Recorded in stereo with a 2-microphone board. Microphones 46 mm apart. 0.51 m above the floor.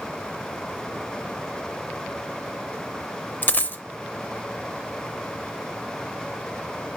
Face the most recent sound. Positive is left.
turn(degrees=45)  # may be behind; listen again after turning